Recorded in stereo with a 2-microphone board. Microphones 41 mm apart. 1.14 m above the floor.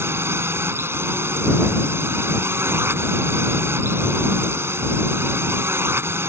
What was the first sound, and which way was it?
A drone, 80° right.